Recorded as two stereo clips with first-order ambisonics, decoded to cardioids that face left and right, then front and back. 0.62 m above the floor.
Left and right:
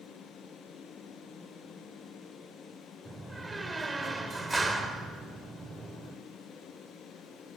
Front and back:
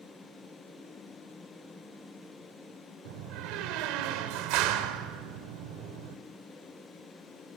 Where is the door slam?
170° right, 1.4 m.